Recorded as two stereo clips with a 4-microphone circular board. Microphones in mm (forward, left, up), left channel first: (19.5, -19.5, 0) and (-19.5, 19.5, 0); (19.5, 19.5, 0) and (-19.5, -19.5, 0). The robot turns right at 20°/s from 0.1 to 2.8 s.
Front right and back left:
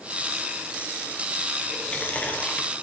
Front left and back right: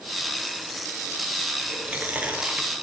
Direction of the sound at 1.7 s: 105° right.